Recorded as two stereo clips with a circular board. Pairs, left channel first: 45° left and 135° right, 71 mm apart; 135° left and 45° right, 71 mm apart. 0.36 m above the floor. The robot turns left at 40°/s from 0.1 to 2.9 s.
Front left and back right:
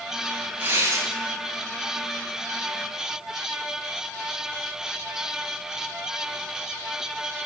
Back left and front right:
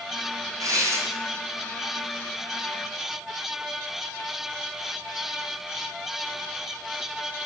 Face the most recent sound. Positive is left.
turn(degrees=-165)